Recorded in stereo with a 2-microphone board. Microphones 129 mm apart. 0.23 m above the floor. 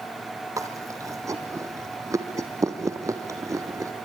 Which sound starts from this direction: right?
Chewing, at 0.6 s.